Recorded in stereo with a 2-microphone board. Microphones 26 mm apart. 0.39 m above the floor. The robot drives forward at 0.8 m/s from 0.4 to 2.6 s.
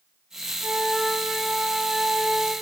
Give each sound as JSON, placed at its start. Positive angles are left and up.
{"t": 0.6, "sound": "a flute", "side_deg": -50, "distance_m": 3.0}